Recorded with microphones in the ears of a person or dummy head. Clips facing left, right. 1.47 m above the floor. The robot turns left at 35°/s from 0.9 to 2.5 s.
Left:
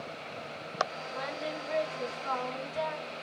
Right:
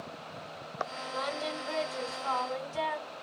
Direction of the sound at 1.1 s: 70° right.